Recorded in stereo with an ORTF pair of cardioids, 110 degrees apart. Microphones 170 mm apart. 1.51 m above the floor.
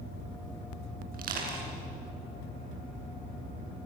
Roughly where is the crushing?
Ahead right.